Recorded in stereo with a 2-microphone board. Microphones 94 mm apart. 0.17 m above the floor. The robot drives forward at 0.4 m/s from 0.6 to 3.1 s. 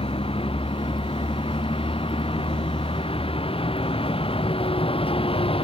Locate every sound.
0.0 s a vehicle: 85° left